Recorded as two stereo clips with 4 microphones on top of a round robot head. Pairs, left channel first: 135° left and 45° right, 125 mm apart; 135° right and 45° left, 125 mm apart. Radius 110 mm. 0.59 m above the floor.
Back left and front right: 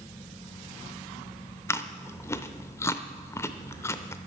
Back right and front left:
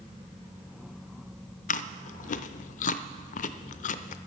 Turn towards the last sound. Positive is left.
turn(degrees=-155)